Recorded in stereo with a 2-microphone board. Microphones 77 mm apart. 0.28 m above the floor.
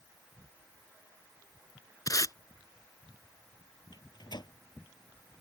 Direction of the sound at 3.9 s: 70° left (ahead or behind).